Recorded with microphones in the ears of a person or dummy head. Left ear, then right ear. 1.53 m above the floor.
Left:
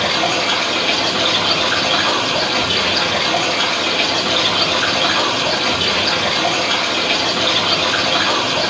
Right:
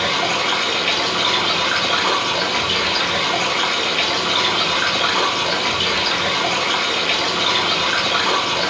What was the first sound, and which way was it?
Running water, 50° right (ahead or behind).